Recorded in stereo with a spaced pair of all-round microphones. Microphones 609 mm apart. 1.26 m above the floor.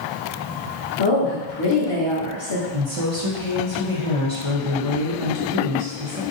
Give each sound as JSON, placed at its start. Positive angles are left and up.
{"t": 1.0, "sound": "a woman speaking", "side_deg": 40, "distance_m": 1.5}
{"t": 2.7, "sound": "a woman speaking", "side_deg": -55, "distance_m": 1.0}